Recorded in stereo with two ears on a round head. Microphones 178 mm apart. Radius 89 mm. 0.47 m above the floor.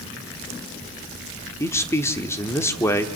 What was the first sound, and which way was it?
A man speaking, 15° left (ahead or behind).